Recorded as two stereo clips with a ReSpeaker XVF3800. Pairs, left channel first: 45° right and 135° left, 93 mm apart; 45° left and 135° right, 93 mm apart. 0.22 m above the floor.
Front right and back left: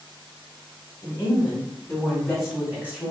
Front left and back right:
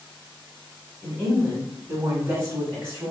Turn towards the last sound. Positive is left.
turn(degrees=-165)